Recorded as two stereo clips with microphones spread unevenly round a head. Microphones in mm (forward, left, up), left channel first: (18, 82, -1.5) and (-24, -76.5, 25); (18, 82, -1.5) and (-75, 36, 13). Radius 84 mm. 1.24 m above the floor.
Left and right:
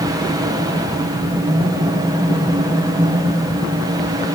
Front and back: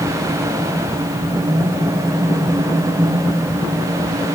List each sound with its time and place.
Only background noise.